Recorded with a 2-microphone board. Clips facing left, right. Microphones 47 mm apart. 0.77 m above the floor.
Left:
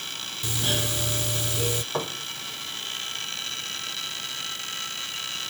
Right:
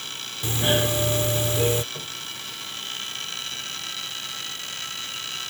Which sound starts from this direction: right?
A doorbell, at 0.4 s.